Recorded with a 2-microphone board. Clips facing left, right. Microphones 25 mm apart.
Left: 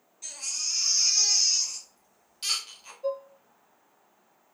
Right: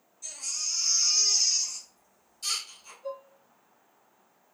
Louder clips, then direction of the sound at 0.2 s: Left 1 dB; 50° left (ahead or behind).